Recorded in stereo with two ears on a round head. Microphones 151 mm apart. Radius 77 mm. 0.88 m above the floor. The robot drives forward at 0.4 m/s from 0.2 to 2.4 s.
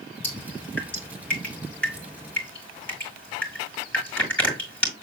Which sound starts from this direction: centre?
Dripping, at 0.2 s.